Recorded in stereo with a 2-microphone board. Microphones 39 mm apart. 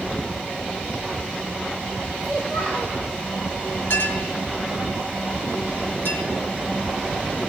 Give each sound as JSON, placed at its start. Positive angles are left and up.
{"t": 2.2, "sound": "a child speaking", "side_deg": 30, "distance_m": 6.0}
{"t": 3.9, "sound": "a clink", "side_deg": 70, "distance_m": 4.0}